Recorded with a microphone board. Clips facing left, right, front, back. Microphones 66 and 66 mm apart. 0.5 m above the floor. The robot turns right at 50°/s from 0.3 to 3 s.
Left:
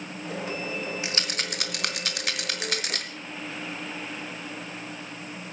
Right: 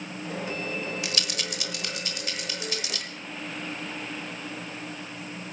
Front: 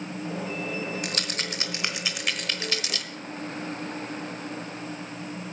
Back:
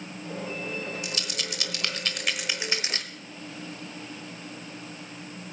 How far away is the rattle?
About 1.0 m.